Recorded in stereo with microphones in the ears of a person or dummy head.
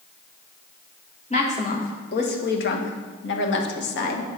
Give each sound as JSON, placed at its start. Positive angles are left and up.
{"t": 1.3, "sound": "a woman speaking", "side_deg": 30, "distance_m": 1.6}